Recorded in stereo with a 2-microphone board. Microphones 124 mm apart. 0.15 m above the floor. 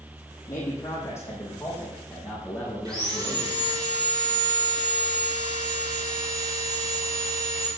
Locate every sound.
0.5 s a man speaking: 25° left (ahead or behind), 6.5 m; by 3.5 s centre (ahead or behind), 7 m
2.9 s sawing: 30° right (ahead or behind), 5 m